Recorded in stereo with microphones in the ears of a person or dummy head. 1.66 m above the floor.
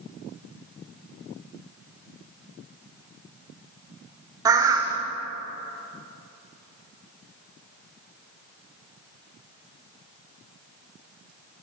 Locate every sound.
4.5 s a bird: 20° right (ahead or behind), 0.7 m